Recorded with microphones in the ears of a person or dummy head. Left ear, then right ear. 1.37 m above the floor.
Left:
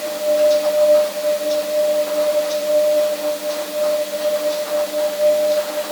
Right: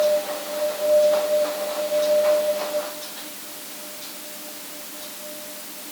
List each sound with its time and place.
Only background noise.